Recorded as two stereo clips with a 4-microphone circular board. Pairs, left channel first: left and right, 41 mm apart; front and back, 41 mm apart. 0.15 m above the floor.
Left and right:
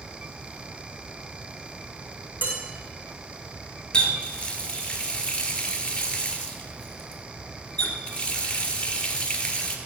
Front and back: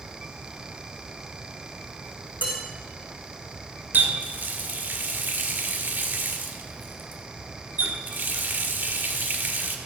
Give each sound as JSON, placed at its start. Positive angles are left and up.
{"t": 2.4, "sound": "dishes clattering", "azimuth_deg": -130, "distance_m": 6.0}
{"t": 3.9, "sound": "a running tap", "azimuth_deg": 150, "distance_m": 1.6}